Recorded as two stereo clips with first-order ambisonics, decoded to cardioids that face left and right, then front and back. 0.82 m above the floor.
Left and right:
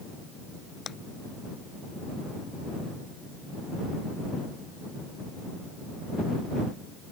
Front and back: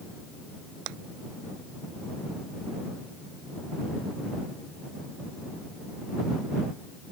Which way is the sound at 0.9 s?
150° left.